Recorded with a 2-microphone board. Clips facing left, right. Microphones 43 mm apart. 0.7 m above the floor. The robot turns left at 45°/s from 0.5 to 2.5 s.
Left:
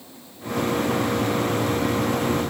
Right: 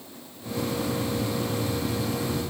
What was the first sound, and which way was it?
Only background noise.